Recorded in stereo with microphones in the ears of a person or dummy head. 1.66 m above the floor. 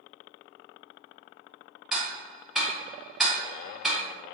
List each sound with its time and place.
1.9 s ticking: centre (ahead or behind), 0.5 m